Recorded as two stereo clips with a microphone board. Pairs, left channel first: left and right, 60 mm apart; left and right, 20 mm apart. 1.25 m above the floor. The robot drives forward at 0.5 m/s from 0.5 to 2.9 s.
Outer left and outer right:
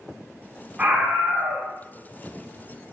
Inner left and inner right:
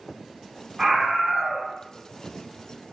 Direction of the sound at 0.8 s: 25° right (ahead or behind).